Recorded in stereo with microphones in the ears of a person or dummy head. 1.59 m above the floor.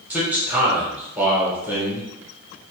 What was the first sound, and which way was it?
A man speaking, 15° right (ahead or behind).